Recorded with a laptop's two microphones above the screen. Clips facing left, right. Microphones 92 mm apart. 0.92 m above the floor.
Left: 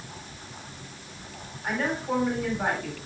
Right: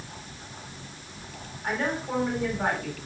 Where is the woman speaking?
Centre (ahead or behind), 3 m.